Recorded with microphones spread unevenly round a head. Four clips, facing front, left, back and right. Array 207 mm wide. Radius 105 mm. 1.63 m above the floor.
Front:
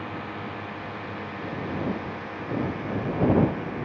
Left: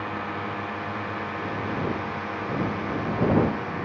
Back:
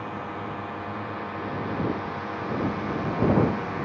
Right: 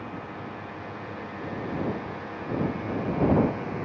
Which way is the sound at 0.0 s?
105° left.